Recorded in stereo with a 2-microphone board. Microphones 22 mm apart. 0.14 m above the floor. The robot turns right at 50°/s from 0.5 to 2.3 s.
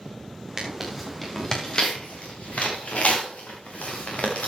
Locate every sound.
0.6 s tearing paper: 25° right (ahead or behind), 5.5 m; by 4.5 s 60° left (ahead or behind), 5.5 m